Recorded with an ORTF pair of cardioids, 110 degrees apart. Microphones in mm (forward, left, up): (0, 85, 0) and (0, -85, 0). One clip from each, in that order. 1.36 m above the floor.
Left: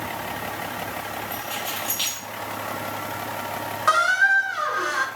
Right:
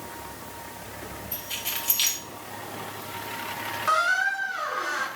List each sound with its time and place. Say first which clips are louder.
1.3 s keys jangling: even; 40° right, 2.5 m
3.9 s a squeak: left 5 dB; 30° left, 1.0 m